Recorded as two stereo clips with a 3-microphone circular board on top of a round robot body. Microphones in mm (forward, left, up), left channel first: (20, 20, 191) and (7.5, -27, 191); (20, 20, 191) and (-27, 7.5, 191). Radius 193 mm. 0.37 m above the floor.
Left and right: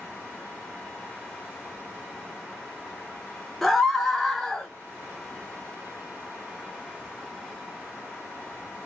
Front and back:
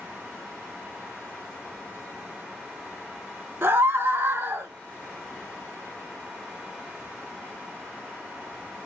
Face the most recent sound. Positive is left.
turn(degrees=165)